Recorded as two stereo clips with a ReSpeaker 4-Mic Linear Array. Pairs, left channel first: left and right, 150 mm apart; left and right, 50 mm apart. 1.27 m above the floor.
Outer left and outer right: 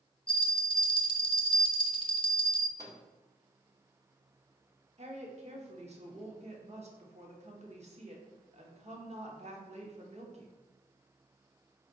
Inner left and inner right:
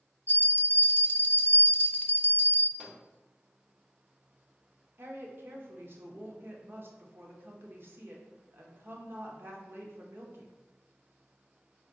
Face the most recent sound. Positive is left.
turn(degrees=-50)  # may be behind; listen again after turning